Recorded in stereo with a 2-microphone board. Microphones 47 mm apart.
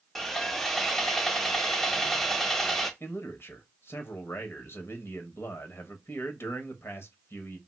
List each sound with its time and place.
0.1 s sawing: 5° left (ahead or behind), 0.6 m
3.0 s a man speaking: 60° left (ahead or behind), 1.0 m